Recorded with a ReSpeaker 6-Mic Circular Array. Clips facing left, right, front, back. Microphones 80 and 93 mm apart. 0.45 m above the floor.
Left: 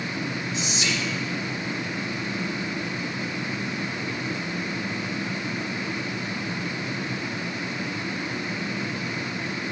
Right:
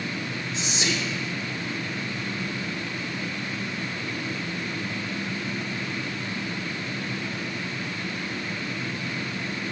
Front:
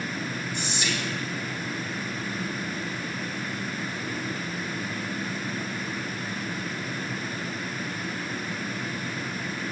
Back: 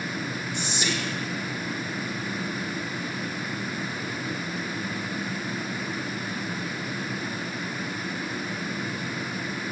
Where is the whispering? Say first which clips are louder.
Right 2 dB, back 2 dB; 120° right, 0.9 m.